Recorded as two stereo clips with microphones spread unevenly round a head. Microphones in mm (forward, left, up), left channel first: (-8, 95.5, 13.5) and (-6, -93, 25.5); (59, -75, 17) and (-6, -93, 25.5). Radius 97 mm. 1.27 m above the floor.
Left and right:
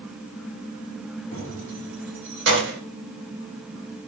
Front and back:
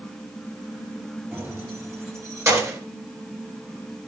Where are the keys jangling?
115° right, 4.5 m; by 2.8 s 120° right, 4 m.